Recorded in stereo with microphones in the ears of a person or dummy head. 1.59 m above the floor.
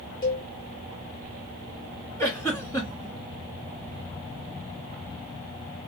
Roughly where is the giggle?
Centre.